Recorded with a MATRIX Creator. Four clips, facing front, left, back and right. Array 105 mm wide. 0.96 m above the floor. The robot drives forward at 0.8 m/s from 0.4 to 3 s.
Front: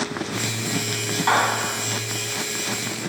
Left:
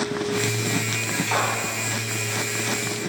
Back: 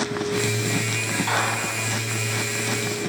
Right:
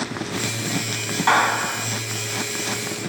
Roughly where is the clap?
Right.